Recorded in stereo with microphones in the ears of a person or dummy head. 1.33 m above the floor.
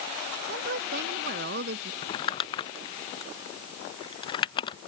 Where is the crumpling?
30° left (ahead or behind).